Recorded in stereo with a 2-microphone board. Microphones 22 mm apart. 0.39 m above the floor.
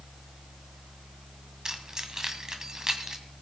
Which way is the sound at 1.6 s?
30° right (ahead or behind).